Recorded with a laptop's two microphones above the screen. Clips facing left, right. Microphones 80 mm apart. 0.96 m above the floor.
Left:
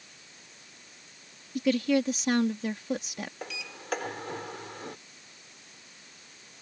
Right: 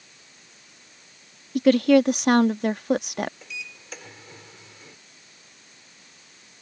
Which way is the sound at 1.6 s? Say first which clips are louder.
Right 9 dB; 65° right (ahead or behind).